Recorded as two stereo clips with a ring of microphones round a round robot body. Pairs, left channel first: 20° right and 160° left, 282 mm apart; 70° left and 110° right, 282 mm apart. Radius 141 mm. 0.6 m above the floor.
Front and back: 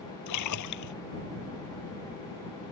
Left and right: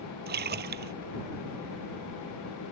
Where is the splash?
55° right.